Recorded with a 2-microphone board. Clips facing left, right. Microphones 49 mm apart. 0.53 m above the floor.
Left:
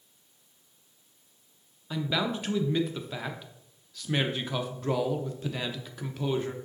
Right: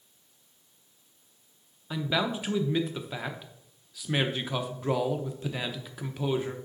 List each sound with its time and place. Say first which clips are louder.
1.9 s a man speaking: right 1 dB; 10° right (ahead or behind), 0.7 m